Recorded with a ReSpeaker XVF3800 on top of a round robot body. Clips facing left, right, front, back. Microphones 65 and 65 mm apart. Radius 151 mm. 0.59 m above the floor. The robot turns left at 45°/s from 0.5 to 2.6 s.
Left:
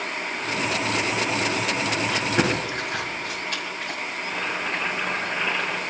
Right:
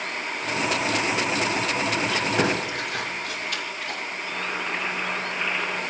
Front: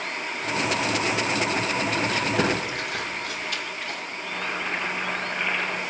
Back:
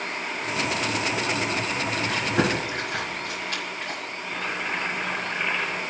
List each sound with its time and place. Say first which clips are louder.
2.1 s chewing: left 1 dB, even; 160° left, 4 m; by 4.0 s 135° left, 4 m
4.2 s boiling: left 2 dB, front 1 dB; 100° left, 8 m